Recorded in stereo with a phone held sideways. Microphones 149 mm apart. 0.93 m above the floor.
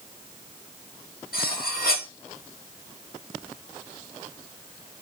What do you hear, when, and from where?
1.3 s cutlery clinking: 85° left, 0.9 m